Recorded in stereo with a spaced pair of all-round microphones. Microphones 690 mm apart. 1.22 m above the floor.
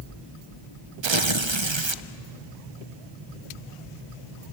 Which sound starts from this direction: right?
Tearing paper, at 1.0 s.